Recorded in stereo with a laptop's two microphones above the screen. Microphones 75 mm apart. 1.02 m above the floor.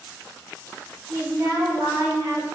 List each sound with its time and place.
1.1 s a woman speaking: 45° right (ahead or behind), 1.5 m